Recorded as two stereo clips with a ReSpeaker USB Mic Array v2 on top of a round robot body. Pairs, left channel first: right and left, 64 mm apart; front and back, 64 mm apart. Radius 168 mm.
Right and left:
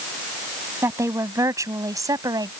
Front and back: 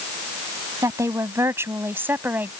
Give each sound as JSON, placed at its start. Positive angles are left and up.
{"t": 0.8, "sound": "a woman speaking", "azimuth_deg": 135}